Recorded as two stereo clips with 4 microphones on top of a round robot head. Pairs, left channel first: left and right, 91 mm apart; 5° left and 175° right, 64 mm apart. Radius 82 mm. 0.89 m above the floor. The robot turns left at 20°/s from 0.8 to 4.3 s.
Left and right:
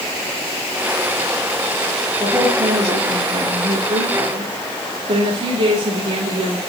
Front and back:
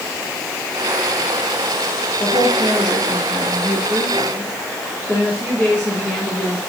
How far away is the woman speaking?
About 3 m.